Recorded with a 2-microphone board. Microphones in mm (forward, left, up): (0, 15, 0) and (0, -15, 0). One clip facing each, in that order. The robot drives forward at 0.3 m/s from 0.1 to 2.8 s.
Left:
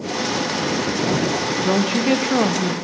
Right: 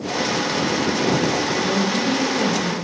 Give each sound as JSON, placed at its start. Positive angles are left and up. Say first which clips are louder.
{"t": 1.6, "sound": "a woman speaking", "louder": "left 1 dB", "side_deg": 55, "distance_m": 0.6}